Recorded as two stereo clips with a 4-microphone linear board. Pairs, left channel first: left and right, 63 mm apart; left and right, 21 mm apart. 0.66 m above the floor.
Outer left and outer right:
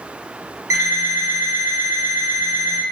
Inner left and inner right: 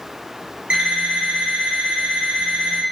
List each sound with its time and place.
0.7 s an alarm clock: 65° right (ahead or behind), 1.0 m